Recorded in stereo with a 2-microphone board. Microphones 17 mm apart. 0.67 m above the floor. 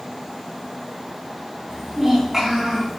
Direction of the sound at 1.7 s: 20° right (ahead or behind).